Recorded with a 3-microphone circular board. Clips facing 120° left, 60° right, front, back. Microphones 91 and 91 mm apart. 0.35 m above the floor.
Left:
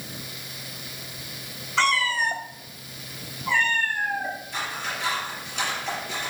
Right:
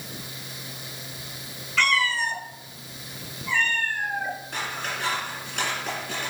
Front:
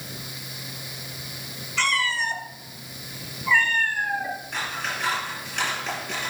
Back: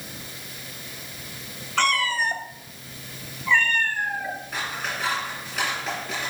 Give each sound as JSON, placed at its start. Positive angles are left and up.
{"t": 1.8, "sound": "a cat meowing", "azimuth_deg": 170, "distance_m": 0.7}
{"t": 4.5, "sound": "scissors", "azimuth_deg": -100, "distance_m": 3.5}